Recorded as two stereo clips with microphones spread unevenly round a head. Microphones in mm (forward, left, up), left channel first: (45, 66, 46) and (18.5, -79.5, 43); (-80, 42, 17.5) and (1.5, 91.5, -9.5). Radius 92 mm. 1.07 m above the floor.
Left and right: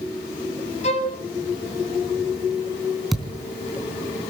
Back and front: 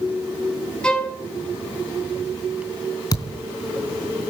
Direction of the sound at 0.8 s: 135° left.